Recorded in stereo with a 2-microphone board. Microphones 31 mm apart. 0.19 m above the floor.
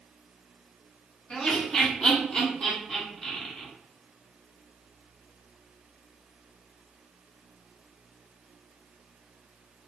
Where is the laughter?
35° left (ahead or behind), 1.9 m; by 3.7 s 15° left (ahead or behind), 1.6 m.